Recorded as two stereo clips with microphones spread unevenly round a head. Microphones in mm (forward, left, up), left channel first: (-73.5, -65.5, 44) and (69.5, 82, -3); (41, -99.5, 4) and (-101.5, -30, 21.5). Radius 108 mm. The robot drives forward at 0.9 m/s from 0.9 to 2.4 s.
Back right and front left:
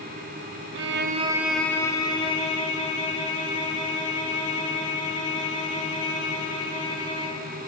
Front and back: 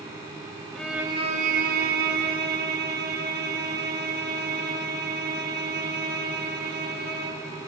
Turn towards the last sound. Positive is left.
turn(degrees=165)